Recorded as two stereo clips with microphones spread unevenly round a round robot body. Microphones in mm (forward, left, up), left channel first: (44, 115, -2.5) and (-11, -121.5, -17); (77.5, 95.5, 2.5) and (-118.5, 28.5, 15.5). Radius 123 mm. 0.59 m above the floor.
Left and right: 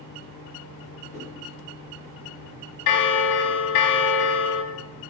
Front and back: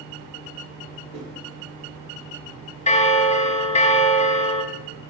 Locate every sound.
1.1 s a whoosh: 170° right, 3 m
2.9 s a bell: 80° left, 0.7 m